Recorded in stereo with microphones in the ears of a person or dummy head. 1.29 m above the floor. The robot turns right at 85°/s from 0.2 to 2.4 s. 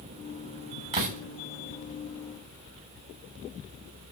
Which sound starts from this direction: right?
A door slam, at 0.9 s.